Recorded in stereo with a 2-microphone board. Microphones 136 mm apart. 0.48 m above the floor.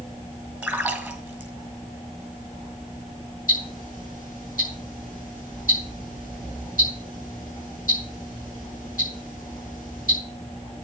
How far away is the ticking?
About 7 m.